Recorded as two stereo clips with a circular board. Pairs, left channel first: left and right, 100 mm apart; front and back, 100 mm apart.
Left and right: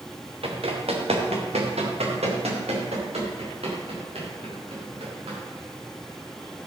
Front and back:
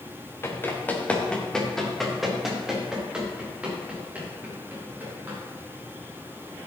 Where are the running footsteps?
65° right, 2.5 m; by 5.4 s 110° right, 6.5 m.